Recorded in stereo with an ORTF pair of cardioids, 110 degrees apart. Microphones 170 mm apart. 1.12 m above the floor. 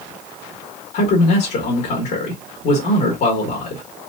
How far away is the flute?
I don't hear a flute.